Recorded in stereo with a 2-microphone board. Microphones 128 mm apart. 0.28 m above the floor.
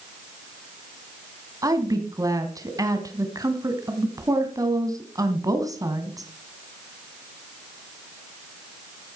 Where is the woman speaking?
25° right (ahead or behind), 1.9 m.